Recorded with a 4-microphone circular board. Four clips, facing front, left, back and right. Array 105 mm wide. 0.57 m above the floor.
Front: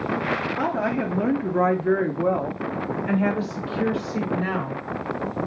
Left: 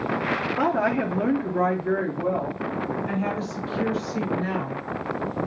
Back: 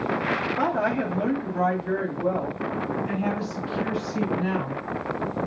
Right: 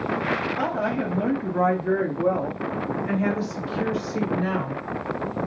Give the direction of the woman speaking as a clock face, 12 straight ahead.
9 o'clock.